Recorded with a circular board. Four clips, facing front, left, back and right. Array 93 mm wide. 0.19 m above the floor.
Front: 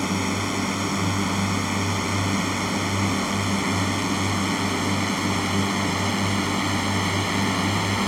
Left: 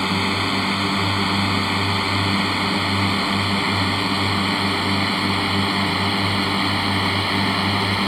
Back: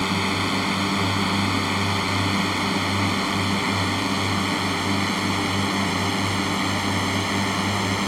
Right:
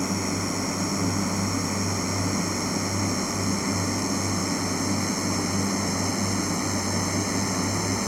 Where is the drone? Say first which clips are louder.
Left 5 dB, back 1 dB; 110° left; by 8.1 s 95° left.